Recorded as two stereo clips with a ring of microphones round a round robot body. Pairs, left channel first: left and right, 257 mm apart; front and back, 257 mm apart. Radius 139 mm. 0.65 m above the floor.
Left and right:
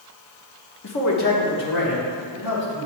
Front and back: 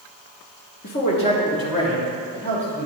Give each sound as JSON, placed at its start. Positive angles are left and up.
{"t": 0.8, "sound": "a man speaking", "azimuth_deg": 50, "distance_m": 0.9}